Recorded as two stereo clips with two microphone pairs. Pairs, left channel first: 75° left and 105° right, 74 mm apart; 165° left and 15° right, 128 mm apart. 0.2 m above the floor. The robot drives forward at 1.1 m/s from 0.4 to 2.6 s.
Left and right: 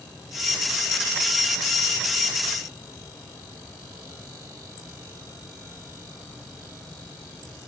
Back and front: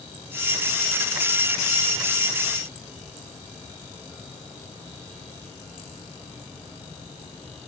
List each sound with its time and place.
Only background noise.